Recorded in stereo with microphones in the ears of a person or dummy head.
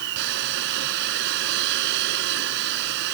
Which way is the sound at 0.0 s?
60° right (ahead or behind).